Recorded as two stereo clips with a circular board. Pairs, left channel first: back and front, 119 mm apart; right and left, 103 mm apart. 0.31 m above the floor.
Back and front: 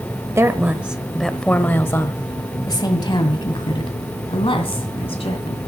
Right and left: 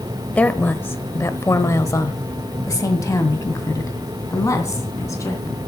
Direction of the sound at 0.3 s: 25° right.